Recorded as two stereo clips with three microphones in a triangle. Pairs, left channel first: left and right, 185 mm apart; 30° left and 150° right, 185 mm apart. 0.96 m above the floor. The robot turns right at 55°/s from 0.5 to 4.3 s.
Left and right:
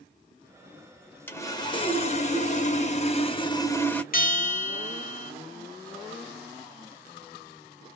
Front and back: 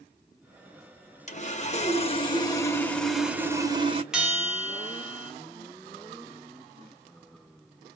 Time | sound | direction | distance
1.3 | sawing | 20° left | 0.8 m
4.1 | a bell | 125° left | 0.7 m